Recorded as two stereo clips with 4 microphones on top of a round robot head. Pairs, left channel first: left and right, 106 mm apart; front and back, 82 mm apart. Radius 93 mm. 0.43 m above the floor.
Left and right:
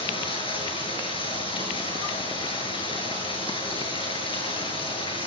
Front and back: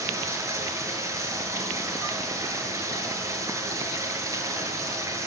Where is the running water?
130° left, 8 m.